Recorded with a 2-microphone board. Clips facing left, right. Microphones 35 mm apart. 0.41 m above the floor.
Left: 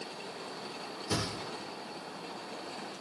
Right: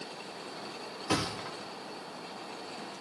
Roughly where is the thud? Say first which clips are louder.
Right 3 dB; right.